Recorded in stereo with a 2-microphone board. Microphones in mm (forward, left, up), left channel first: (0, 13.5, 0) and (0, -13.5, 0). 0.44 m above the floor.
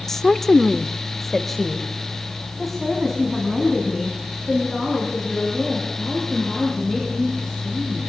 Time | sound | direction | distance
0.1 | a woman speaking | 15° left (ahead or behind) | 1.3 m